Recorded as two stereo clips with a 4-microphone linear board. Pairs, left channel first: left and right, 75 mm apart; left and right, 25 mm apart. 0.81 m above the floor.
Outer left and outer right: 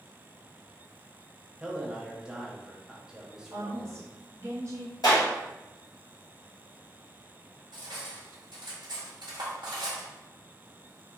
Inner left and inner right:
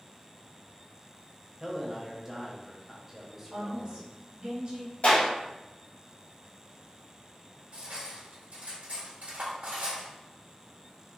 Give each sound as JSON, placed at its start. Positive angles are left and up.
{"t": 1.6, "sound": "a man speaking", "side_deg": -10, "distance_m": 0.8}
{"t": 3.5, "sound": "a woman speaking", "side_deg": -40, "distance_m": 1.0}
{"t": 5.0, "sound": "a clap", "side_deg": 65, "distance_m": 1.5}
{"t": 7.7, "sound": "cutlery clinking", "side_deg": -85, "distance_m": 1.5}